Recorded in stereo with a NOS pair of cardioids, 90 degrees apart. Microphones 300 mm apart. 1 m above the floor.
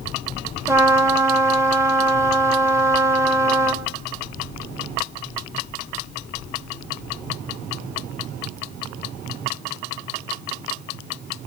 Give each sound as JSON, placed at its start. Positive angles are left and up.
{"t": 0.7, "sound": "a trumpet", "azimuth_deg": -10, "distance_m": 1.8}